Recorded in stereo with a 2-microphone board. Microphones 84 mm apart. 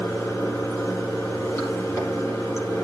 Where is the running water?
35° left (ahead or behind), 5 m.